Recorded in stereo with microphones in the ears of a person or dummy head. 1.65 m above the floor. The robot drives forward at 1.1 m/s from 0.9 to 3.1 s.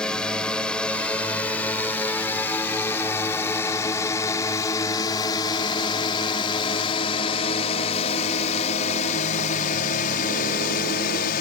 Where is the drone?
5° right (ahead or behind); by 11.4 s 45° left (ahead or behind).